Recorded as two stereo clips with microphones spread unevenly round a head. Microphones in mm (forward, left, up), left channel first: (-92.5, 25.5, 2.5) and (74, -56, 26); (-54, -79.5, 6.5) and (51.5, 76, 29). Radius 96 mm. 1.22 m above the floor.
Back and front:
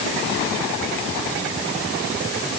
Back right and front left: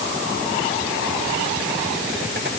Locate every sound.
Only background noise.